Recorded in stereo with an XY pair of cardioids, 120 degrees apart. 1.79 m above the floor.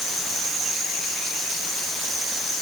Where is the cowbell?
I don't hear a cowbell.